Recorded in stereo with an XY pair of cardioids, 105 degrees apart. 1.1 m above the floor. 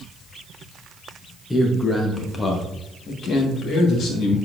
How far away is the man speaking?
About 1.0 m.